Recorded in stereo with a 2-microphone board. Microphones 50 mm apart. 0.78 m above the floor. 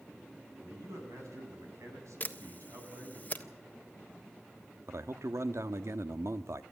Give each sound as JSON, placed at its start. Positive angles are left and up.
{"t": 0.6, "sound": "a man speaking", "side_deg": -80, "distance_m": 6.5}
{"t": 2.2, "sound": "a camera shutter", "side_deg": 35, "distance_m": 1.4}
{"t": 4.9, "sound": "a man speaking", "side_deg": -70, "distance_m": 1.1}